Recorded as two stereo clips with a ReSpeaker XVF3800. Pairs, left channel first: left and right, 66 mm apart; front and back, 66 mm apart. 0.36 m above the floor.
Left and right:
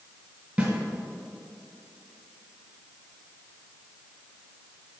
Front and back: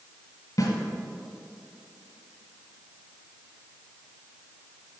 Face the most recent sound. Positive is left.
turn(degrees=-25)